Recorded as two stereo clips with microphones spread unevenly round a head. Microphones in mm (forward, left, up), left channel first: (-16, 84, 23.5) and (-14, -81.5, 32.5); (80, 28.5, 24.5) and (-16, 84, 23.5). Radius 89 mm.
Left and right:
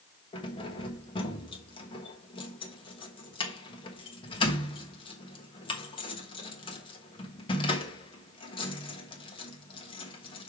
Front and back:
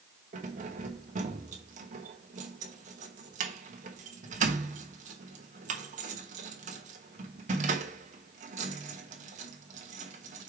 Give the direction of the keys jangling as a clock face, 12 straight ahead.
7 o'clock.